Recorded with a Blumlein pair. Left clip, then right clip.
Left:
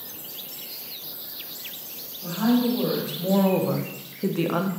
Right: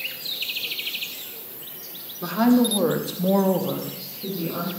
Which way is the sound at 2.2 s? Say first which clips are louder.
Right 4 dB; 40° right.